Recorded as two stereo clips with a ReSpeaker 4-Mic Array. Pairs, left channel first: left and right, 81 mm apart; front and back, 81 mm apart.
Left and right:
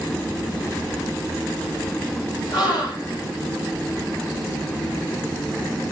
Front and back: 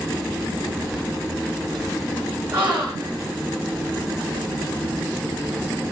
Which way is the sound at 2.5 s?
110° left.